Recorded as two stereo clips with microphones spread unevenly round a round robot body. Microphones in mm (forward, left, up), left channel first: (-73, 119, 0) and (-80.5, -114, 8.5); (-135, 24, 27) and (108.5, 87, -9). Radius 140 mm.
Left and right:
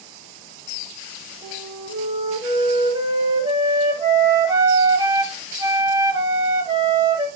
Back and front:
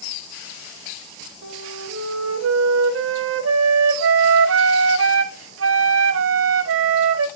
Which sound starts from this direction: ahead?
A flute, at 1.4 s.